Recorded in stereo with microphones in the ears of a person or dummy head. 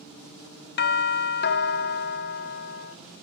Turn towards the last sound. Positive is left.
turn(degrees=40)  # may be behind; listen again after turning